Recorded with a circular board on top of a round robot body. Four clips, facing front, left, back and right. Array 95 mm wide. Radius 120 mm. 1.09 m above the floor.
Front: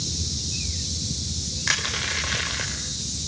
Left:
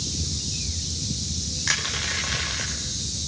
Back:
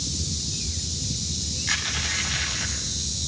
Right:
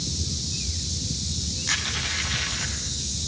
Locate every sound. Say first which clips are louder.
1.7 s crushing: left 2 dB, front 3 dB; 30° left, 4 m